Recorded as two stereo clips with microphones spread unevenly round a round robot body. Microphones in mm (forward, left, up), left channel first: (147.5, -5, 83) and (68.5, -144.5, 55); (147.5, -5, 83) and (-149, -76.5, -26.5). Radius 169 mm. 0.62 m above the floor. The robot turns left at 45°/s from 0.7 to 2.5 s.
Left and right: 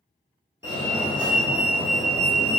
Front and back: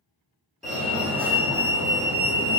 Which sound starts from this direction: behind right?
A fire alarm, at 0.6 s.